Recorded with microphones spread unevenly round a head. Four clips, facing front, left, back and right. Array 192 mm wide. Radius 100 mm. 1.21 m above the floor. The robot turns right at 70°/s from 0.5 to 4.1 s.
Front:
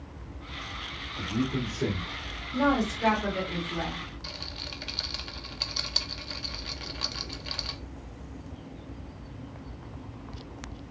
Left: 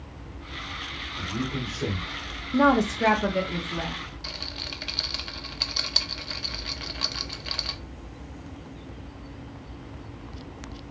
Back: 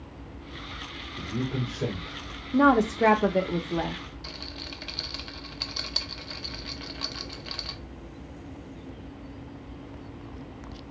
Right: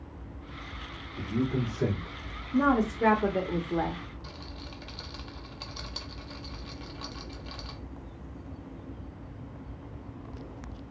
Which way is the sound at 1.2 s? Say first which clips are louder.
Right 2 dB, front 2 dB; 140° right.